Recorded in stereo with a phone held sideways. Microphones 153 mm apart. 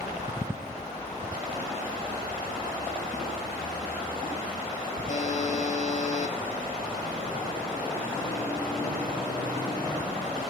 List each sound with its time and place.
5.1 s a buzzer: 50° left (ahead or behind), 1.0 m